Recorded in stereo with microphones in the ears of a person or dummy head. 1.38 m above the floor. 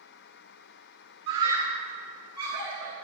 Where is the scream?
30° right (ahead or behind), 3 m; by 3.0 s 25° right (ahead or behind), 4.5 m.